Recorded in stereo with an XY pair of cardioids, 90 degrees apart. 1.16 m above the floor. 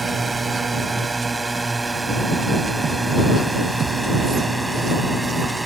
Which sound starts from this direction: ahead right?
A drone, at 0.0 s.